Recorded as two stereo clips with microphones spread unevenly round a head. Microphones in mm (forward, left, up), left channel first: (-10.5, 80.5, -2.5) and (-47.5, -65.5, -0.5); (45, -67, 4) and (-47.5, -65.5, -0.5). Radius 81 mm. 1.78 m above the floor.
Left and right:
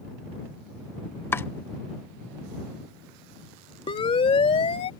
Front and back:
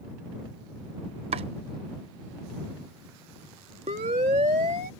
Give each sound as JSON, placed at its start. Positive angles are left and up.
{"t": 1.3, "sound": "chopping", "azimuth_deg": 150}
{"t": 3.9, "sound": "a siren", "azimuth_deg": 130}